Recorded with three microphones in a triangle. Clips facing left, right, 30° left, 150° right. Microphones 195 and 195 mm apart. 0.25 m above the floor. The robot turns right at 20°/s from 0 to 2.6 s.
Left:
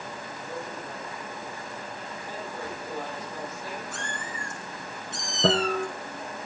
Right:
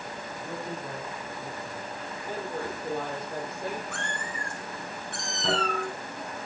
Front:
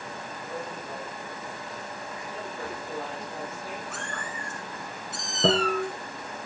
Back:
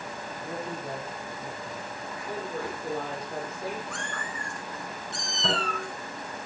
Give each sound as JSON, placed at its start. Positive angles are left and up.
{"t": 0.4, "sound": "a man speaking", "azimuth_deg": -125, "distance_m": 9.0}
{"t": 2.3, "sound": "a woman speaking", "azimuth_deg": -130, "distance_m": 9.5}
{"t": 3.9, "sound": "a cat meowing", "azimuth_deg": -55, "distance_m": 3.5}
{"t": 5.4, "sound": "a guitar", "azimuth_deg": 60, "distance_m": 6.5}